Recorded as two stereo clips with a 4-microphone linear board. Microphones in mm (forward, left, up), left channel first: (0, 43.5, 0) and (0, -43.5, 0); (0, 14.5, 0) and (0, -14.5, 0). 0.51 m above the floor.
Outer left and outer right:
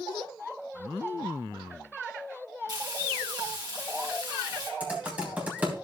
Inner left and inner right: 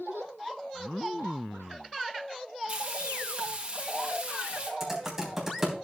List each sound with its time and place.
2.7 s frying: 50° right (ahead or behind), 3.5 m
4.8 s typing on a keyboard: 15° right (ahead or behind), 3.5 m